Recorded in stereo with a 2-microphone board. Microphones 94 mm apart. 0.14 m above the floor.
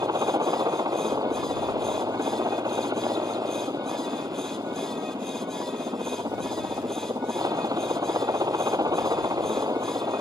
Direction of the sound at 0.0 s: 40° right (ahead or behind).